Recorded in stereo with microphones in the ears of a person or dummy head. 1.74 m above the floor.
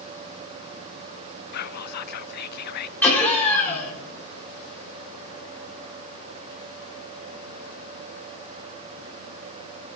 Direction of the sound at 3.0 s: 10° left (ahead or behind).